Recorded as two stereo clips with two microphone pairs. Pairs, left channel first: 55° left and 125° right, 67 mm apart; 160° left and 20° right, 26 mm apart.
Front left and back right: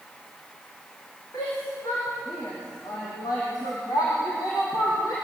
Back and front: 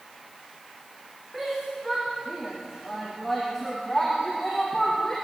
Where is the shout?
65° left, 8 m; by 5.2 s 90° left, 6.5 m.